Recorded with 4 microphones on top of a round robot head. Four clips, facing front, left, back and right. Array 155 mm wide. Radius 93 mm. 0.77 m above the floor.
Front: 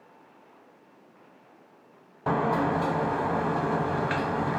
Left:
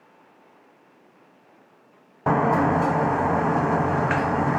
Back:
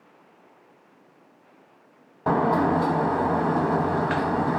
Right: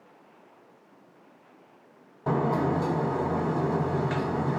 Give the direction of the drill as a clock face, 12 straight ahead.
I don't hear a drill.